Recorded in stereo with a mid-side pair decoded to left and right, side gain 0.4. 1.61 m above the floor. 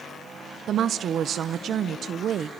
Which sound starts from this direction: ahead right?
A woman speaking, at 0.7 s.